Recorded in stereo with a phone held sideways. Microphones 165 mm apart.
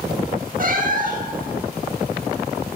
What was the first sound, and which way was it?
A cat meowing, 55° right (ahead or behind).